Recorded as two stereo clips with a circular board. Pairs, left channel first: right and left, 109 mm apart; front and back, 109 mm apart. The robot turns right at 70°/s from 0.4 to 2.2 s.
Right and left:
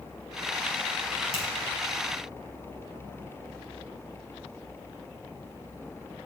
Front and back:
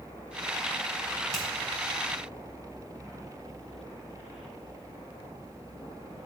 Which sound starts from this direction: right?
A finger snap, at 1.3 s.